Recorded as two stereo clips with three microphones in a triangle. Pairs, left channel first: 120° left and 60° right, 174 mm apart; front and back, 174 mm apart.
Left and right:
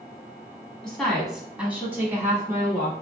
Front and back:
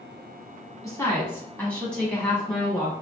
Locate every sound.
0.8 s a woman speaking: 40° left, 1.3 m; by 2.9 s 100° right, 1.4 m